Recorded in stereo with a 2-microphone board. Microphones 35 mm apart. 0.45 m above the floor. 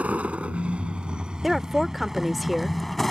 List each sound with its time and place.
0.0 s a vehicle: 40° right (ahead or behind); by 3.1 s 5° left (ahead or behind)
1.4 s a woman speaking: centre (ahead or behind)